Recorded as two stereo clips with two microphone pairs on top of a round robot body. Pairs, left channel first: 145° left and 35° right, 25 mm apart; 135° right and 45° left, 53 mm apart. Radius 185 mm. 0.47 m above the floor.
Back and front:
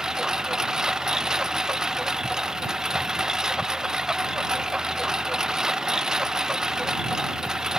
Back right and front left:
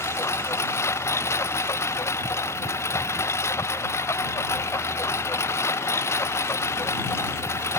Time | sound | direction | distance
0.0 | a lawn mower | 100° right | ?